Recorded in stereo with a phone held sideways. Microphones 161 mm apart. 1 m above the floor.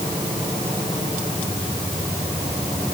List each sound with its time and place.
Only background noise.